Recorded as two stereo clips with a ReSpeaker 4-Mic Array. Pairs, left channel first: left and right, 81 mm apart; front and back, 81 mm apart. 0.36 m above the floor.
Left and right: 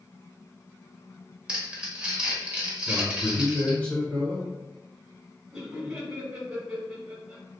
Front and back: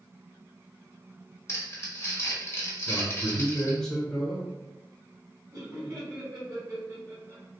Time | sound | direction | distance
1.5 | crumpling | 20° right | 1.2 m
2.9 | a man speaking | 65° left | 1.0 m
5.5 | laughter | 170° right | 1.7 m